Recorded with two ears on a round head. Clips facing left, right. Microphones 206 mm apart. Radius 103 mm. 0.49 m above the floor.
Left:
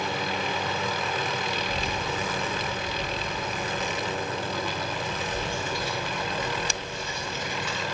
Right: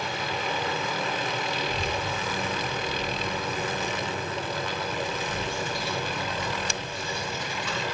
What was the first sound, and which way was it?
A child speaking, 65° right (ahead or behind).